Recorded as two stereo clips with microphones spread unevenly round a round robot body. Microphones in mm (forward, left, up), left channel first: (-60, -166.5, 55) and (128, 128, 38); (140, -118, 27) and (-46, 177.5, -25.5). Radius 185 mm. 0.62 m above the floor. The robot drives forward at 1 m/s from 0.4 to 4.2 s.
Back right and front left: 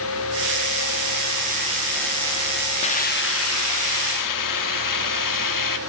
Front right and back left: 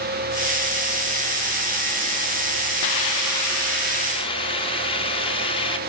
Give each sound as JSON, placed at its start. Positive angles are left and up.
{"t": 2.8, "sound": "a hiss", "azimuth_deg": -50, "distance_m": 1.2}